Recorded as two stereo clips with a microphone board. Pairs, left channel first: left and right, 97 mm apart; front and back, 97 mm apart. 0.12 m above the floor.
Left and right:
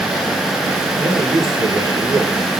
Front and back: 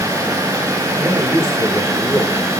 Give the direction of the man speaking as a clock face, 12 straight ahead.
4 o'clock.